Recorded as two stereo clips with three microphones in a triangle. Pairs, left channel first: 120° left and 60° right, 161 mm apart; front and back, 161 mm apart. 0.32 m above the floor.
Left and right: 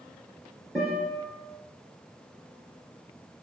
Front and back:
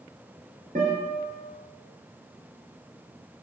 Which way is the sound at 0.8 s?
145° right.